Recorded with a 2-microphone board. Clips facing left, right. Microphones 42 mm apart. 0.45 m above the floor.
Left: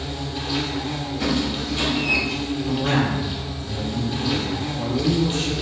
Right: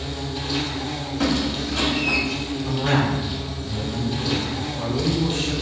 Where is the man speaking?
25° right (ahead or behind), 2.0 m.